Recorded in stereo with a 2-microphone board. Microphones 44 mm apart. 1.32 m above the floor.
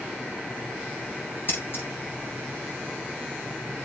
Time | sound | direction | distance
1.5 | scissors | 50° left (ahead or behind) | 7.5 m